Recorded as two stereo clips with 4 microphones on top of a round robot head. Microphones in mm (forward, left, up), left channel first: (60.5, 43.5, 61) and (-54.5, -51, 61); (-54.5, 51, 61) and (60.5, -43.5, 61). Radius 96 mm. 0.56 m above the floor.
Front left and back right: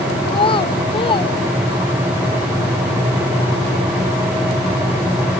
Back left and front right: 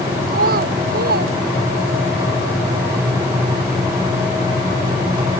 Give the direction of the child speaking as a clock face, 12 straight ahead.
1 o'clock.